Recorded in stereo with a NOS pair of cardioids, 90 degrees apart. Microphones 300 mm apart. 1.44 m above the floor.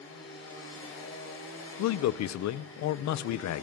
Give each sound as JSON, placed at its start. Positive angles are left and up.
{"t": 0.0, "sound": "a machine running", "azimuth_deg": 45, "distance_m": 4.5}
{"t": 1.8, "sound": "a man speaking", "azimuth_deg": 70, "distance_m": 0.6}